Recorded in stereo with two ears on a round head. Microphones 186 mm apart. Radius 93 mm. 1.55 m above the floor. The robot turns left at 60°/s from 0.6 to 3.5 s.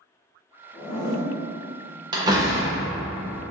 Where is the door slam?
20° right (ahead or behind), 0.6 m; by 3.5 s 15° left (ahead or behind), 0.6 m.